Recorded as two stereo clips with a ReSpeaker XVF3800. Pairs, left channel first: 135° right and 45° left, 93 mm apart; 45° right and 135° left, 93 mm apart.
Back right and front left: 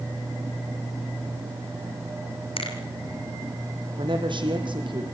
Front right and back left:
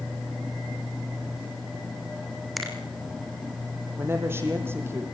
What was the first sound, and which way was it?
A finger snap, 135° right.